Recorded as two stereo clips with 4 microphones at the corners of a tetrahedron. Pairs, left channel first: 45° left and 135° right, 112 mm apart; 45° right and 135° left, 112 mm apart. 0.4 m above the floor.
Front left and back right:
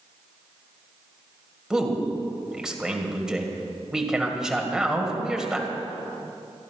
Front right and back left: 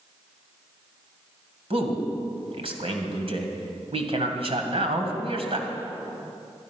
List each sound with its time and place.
1.7 s a man speaking: 140° left, 2.0 m